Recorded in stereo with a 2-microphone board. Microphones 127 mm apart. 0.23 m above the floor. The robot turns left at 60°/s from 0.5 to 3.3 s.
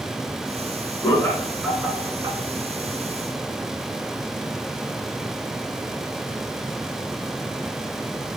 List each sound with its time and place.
1.0 s laughter: 30° left (ahead or behind), 1.9 m; by 2.4 s 40° right (ahead or behind), 1.9 m